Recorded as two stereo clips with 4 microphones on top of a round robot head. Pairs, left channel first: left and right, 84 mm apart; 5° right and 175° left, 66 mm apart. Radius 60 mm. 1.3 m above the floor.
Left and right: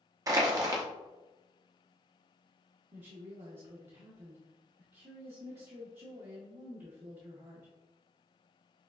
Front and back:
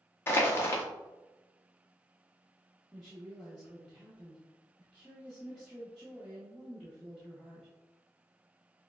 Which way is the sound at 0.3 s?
50° right.